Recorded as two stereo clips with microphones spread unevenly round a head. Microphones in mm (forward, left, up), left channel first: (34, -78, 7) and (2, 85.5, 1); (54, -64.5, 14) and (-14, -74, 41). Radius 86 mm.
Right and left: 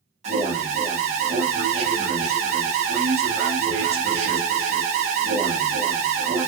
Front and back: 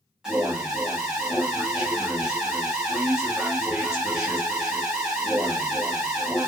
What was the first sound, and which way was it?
An alarm, 85° left.